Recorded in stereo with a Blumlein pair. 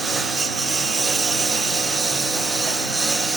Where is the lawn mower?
15° right; by 3.4 s 5° right.